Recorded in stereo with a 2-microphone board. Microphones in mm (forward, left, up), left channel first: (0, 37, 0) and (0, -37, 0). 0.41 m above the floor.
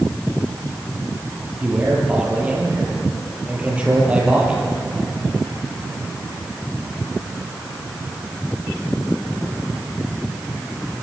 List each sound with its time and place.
1.6 s a man speaking: 15° right (ahead or behind), 8.5 m